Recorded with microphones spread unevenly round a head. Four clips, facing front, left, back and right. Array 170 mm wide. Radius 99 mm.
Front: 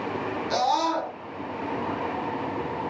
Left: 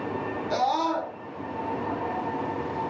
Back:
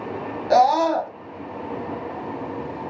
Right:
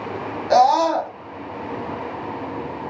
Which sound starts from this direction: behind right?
A scream, at 0.5 s.